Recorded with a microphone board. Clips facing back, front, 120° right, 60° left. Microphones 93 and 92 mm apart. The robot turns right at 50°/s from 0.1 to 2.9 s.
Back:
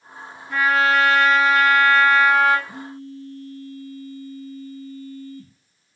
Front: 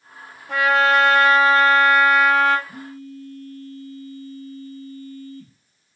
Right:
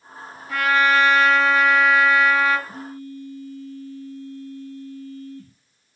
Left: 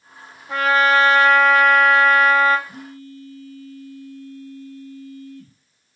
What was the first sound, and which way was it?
A trumpet, straight ahead.